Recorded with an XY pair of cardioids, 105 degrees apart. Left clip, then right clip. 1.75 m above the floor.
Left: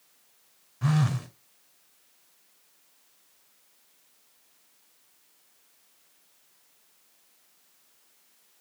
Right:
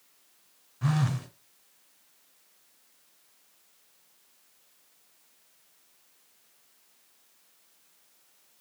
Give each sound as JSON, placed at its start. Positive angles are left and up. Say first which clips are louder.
{"t": 0.8, "sound": "a phone buzzing", "louder": "left 2 dB", "azimuth_deg": 10, "distance_m": 0.8}